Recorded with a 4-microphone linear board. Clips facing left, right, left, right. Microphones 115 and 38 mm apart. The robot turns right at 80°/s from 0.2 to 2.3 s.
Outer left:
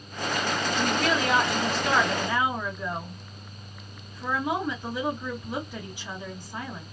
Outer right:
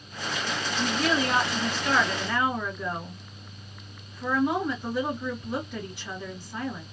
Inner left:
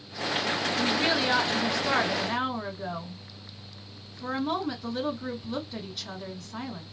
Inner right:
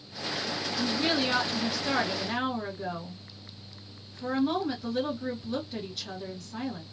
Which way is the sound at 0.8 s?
55° left.